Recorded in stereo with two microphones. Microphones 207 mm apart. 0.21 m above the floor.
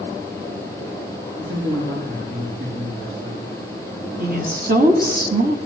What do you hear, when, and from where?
1.4 s a man speaking: 75° right (ahead or behind), 7.5 m
4.2 s a woman speaking: 45° right (ahead or behind), 2 m